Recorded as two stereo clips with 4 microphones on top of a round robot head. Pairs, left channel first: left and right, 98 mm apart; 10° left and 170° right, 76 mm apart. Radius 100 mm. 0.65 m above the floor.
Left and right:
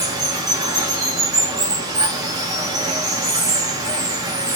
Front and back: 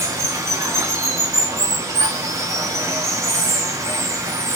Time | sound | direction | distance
0.0 | running water | 130° right | 0.9 m